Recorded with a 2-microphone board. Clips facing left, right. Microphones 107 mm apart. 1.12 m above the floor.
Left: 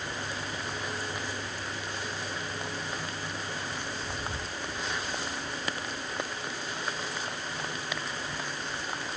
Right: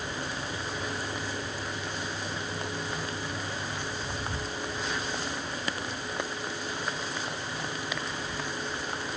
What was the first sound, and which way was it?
Only background noise.